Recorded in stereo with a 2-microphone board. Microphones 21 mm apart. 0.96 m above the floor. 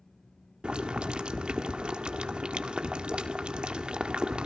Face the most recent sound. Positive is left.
turn(degrees=-65)  # may be behind; listen again after turning